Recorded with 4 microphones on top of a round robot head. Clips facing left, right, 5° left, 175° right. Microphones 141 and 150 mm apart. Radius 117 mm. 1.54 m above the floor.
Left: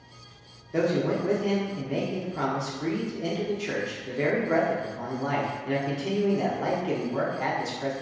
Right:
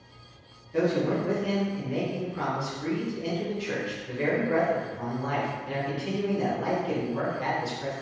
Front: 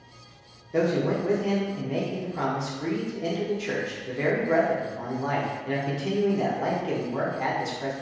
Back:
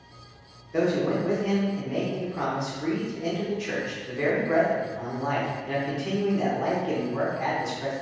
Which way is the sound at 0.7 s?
60° left.